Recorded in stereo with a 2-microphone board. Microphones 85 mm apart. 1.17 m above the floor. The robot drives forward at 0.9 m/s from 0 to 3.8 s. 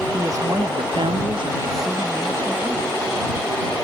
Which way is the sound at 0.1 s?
35° right (ahead or behind).